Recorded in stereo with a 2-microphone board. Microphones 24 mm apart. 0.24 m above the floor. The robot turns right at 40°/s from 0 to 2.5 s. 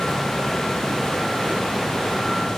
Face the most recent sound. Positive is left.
No sound to turn to.